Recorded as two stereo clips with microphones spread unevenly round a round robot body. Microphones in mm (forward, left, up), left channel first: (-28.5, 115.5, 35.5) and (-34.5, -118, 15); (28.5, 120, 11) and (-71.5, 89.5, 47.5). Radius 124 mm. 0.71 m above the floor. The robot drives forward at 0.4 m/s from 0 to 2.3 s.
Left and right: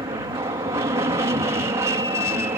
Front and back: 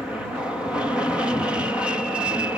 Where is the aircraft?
45° right; by 2.6 s 50° right.